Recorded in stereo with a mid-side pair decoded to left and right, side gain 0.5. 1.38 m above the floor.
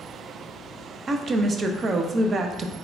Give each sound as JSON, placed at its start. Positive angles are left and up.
{"t": 1.1, "sound": "a woman speaking", "azimuth_deg": -40, "distance_m": 0.5}